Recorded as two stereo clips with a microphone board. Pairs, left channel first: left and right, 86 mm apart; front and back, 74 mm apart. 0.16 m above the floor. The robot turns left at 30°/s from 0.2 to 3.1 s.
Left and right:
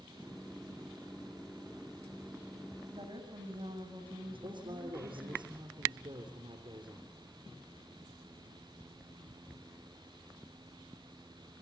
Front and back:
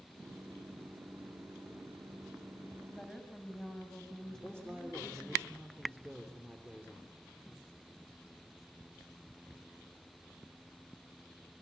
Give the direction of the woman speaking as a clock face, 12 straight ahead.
2 o'clock.